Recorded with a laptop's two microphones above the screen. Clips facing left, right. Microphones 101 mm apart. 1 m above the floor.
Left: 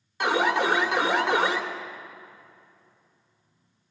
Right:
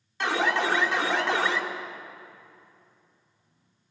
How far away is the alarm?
About 2.5 m.